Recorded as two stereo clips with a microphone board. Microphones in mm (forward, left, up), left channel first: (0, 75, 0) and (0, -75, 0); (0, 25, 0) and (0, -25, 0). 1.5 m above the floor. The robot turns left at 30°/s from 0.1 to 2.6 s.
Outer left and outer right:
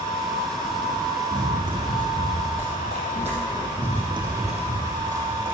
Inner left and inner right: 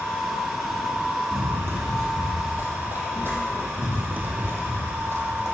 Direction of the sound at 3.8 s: 10° right (ahead or behind).